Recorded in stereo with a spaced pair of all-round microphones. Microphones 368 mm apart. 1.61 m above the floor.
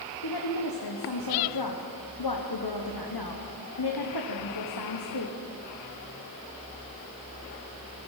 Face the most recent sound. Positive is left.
turn(degrees=85)